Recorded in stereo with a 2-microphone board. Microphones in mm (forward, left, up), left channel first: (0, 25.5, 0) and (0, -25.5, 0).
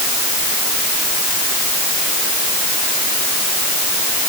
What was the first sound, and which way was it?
Only background noise.